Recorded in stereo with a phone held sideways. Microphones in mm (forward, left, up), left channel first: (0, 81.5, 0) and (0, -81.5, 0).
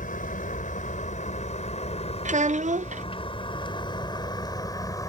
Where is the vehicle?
55° left (ahead or behind); by 5.1 s 20° left (ahead or behind).